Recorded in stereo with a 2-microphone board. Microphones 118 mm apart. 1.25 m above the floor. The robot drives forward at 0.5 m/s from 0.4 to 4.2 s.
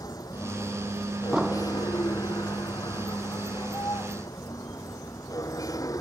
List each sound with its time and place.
0.0 s a vehicle: 30° left (ahead or behind)
1.3 s an explosion: 5° right (ahead or behind)